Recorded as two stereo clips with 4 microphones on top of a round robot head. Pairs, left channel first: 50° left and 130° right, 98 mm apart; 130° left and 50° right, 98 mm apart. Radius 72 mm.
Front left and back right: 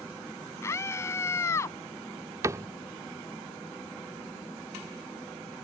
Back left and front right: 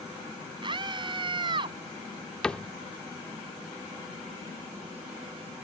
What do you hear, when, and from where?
0.6 s a scream: 10° right
2.4 s a cupboard door: 155° right